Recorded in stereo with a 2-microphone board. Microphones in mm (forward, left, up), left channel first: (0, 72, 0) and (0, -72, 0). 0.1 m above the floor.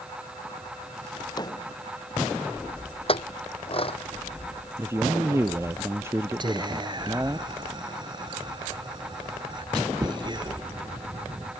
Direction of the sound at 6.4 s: 35° right (ahead or behind).